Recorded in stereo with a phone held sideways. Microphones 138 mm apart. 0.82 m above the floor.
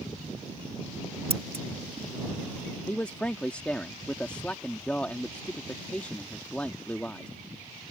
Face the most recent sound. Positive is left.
turn(degrees=10)  # may be behind; listen again after turning